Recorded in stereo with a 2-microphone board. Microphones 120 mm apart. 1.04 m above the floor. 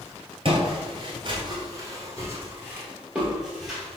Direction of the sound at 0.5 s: 45° right (ahead or behind).